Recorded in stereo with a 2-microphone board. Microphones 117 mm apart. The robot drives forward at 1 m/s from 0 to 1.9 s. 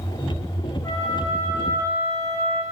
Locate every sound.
0.8 s a flute: 35° left (ahead or behind), 5 m; by 2.6 s 30° left (ahead or behind), 6 m